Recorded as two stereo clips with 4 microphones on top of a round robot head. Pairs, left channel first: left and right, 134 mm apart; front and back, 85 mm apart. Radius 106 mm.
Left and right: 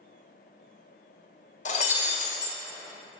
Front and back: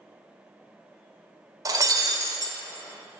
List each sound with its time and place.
1.6 s breaking glass: 135° left, 1.8 m